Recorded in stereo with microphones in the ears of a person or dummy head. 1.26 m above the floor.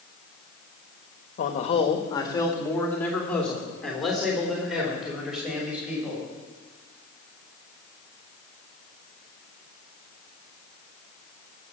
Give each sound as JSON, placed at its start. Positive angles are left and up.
{"t": 1.4, "sound": "a man speaking", "side_deg": 45, "distance_m": 1.2}